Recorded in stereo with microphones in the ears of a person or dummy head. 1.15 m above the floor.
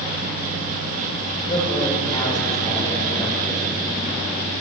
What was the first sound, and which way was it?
A woman speaking, 30° left (ahead or behind).